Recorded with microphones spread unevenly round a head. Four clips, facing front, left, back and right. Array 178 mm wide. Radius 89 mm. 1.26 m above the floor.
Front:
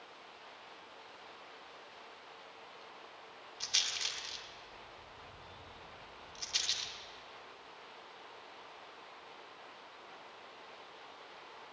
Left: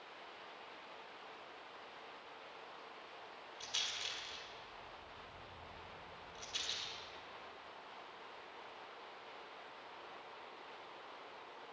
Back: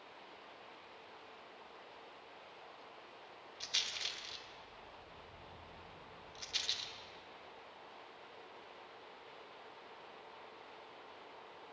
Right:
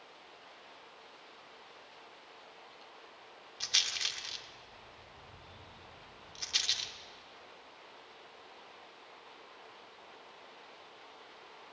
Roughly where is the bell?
I don't hear a bell.